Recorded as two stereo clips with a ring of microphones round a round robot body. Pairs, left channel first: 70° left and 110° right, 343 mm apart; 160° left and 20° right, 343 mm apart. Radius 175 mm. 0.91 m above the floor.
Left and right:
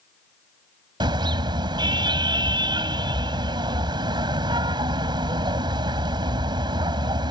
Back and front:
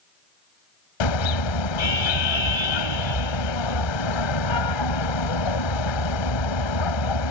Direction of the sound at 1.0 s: 170° left.